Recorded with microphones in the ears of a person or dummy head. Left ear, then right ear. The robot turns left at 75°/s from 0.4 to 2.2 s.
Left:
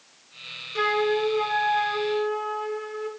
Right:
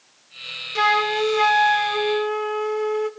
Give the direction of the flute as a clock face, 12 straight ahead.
1 o'clock.